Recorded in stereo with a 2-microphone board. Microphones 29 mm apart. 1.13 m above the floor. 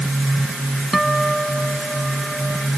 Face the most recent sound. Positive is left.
turn(degrees=0)  # may be behind; listen again after turning